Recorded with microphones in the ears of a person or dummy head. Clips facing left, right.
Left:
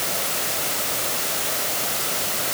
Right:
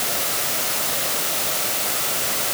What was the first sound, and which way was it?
Only background noise.